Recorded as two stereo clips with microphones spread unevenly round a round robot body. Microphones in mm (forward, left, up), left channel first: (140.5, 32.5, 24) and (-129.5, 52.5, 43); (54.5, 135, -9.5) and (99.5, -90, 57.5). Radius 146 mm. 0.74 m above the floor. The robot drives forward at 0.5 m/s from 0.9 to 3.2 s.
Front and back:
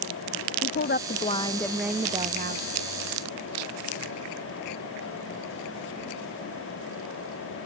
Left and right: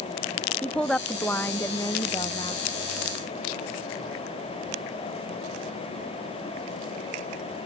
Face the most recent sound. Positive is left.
turn(degrees=155)